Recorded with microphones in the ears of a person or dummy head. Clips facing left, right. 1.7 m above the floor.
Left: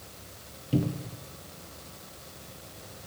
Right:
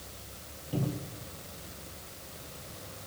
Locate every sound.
0.7 s a cupboard door: 35° left (ahead or behind), 0.9 m